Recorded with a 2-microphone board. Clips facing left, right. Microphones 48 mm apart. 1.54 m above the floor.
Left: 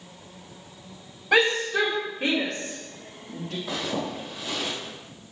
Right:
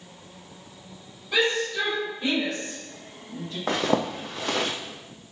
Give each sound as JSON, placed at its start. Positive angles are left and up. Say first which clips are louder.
{"t": 1.3, "sound": "a shout", "louder": "left 3 dB", "side_deg": 85, "distance_m": 3.0}
{"t": 3.7, "sound": "a zipper", "louder": "right 7 dB", "side_deg": -65, "distance_m": 0.7}